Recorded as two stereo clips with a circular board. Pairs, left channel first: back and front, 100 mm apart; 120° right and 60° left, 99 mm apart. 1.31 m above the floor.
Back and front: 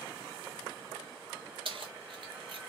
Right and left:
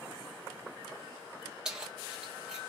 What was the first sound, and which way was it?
Keys jangling, 20° right.